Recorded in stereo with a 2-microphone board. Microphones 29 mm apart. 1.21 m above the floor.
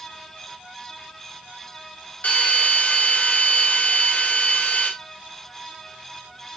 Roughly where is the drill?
Left.